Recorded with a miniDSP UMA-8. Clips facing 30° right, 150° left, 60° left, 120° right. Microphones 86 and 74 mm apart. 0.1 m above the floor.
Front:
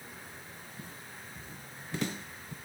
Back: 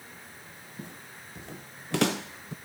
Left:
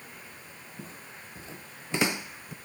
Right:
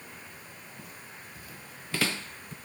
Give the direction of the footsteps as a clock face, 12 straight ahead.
8 o'clock.